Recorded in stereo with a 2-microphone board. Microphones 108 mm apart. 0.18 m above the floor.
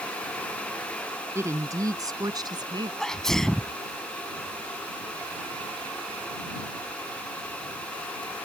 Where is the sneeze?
5° left (ahead or behind).